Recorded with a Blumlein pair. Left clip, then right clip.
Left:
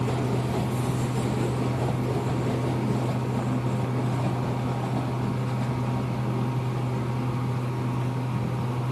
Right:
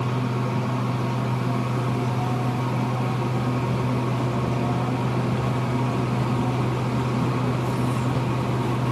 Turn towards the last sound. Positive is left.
turn(degrees=-65)